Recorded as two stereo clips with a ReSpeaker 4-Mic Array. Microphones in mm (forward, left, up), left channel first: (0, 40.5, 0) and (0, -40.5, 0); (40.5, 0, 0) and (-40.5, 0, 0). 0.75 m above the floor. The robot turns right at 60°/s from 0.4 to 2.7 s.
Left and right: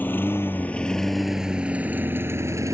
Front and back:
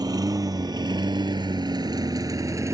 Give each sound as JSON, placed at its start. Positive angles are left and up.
{"t": 0.0, "sound": "a lawn mower", "azimuth_deg": 155}